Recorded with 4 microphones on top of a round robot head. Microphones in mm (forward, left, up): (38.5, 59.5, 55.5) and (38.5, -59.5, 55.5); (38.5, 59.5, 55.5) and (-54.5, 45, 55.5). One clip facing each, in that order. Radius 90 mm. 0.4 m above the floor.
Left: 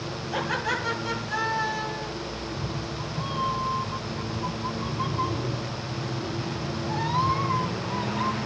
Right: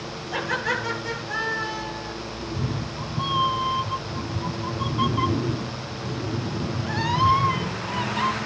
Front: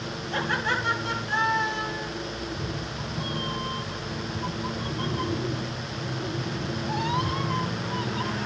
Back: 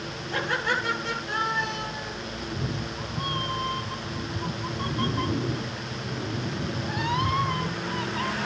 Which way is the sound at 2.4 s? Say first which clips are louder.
Right 2 dB, even; 115° right.